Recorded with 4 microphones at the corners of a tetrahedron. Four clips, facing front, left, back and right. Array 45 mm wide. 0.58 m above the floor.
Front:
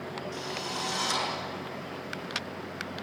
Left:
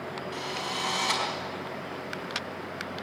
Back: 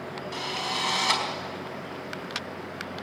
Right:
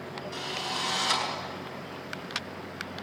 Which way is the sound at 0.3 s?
170° left.